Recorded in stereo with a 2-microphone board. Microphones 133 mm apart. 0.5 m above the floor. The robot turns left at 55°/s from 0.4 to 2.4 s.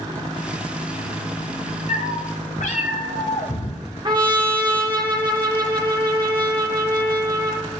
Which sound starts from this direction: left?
A cat meowing, at 1.9 s.